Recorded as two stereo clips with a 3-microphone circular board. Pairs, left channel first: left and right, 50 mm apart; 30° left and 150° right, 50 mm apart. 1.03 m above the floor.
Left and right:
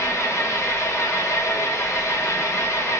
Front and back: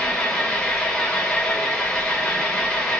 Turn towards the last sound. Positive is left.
turn(degrees=110)